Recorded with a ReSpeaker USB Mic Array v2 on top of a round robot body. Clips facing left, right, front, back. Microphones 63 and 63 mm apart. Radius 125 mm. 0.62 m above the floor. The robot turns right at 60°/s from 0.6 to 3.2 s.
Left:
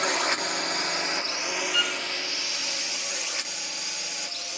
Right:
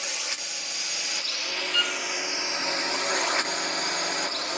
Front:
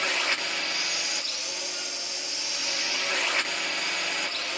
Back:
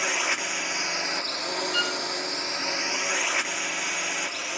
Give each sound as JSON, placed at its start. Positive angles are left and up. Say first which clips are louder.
{"t": 0.0, "sound": "a drone", "louder": "left 10 dB, back 1 dB", "azimuth_deg": 105}
{"t": 1.7, "sound": "a violin", "louder": "right 2 dB, back 11 dB", "azimuth_deg": 175}